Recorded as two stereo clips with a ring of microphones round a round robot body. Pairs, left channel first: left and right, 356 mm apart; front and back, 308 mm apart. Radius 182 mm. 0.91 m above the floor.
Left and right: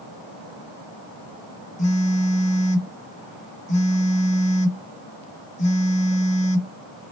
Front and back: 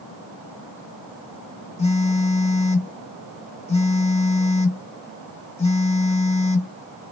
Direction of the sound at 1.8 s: 40° left.